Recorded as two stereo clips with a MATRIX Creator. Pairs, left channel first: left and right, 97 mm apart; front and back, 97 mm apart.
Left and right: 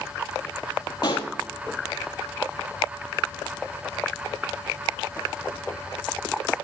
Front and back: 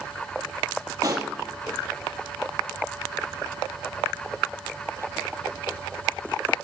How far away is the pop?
About 1.7 m.